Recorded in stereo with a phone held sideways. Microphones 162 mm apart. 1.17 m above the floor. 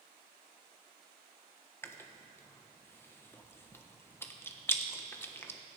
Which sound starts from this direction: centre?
Chewing, at 1.8 s.